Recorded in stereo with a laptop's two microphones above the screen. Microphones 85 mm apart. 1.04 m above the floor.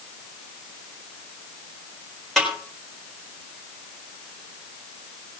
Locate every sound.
2.4 s a snare drum: 5° left (ahead or behind), 4 m